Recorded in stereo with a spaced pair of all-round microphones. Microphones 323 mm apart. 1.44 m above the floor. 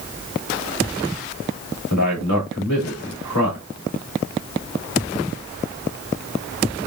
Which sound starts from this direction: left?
A man speaking, at 1.9 s.